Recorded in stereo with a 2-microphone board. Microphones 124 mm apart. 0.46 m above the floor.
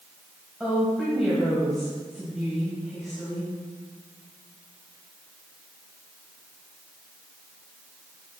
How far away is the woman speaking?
About 2.5 m.